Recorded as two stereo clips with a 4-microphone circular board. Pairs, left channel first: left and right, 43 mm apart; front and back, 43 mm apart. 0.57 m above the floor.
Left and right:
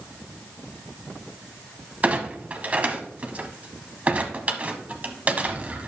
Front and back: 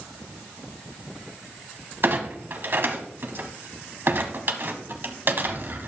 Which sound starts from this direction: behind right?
A clunk, at 2.0 s.